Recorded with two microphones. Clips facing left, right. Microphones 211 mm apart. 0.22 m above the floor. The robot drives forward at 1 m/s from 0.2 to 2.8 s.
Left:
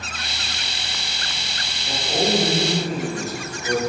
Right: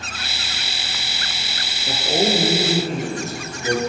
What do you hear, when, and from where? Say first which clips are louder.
1.9 s a man speaking: right 2 dB; 30° right (ahead or behind), 3.5 m; by 3.8 s 25° right (ahead or behind), 4.5 m